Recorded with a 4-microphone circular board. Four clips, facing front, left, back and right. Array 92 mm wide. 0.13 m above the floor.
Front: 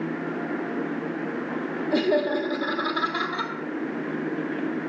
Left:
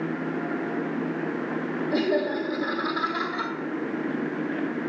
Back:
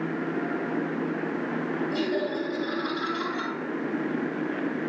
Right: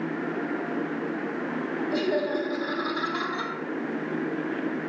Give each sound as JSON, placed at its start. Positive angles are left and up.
{"t": 1.9, "sound": "laughter", "azimuth_deg": -10, "distance_m": 4.0}